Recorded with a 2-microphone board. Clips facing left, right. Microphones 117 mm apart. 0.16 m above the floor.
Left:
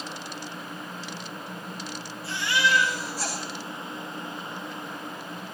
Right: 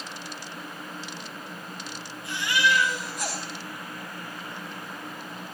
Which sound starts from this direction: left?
A baby crying, at 2.2 s.